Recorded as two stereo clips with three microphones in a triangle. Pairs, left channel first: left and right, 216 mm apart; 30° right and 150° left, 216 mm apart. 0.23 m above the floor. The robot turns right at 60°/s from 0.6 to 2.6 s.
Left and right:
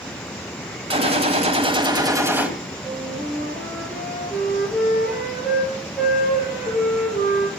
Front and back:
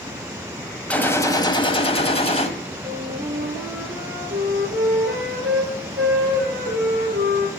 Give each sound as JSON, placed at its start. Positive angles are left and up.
{"t": 0.9, "sound": "a gunshot", "azimuth_deg": -110, "distance_m": 1.4}
{"t": 2.8, "sound": "a flute", "azimuth_deg": 180, "distance_m": 3.5}